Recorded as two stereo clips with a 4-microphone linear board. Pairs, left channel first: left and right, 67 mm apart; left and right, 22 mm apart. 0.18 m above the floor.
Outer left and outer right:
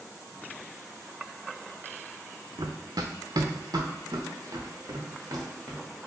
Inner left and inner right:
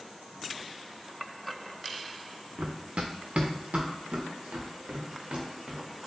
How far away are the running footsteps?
About 0.7 m.